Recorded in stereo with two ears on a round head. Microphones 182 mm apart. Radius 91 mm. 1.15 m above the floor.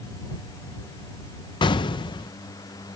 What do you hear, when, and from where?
1.6 s an explosion: 25° left (ahead or behind)